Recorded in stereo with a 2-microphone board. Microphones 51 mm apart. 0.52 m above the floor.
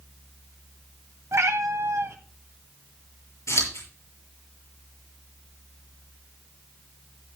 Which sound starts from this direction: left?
Scissors, at 3.5 s.